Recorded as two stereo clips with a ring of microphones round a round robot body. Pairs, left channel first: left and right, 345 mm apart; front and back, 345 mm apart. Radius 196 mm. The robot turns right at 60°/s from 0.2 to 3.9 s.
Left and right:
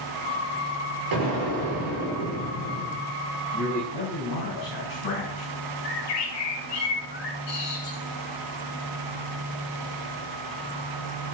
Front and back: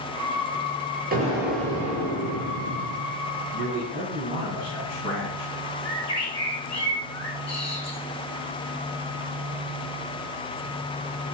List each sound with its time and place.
1.1 s an explosion: 115° right, 6 m; by 3.1 s straight ahead, 6 m
3.5 s a man speaking: 45° left, 5.5 m; by 5.5 s 70° left, 5.5 m
5.8 s a bird: 75° left, 4.5 m